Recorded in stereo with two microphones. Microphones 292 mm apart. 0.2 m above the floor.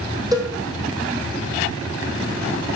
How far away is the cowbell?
About 1.9 m.